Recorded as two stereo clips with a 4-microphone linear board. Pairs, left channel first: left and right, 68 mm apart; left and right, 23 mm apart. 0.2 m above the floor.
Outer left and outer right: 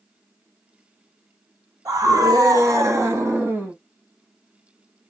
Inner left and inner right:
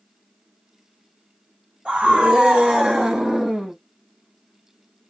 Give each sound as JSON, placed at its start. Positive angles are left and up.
{"t": 1.9, "sound": "a scream", "side_deg": -55, "distance_m": 1.8}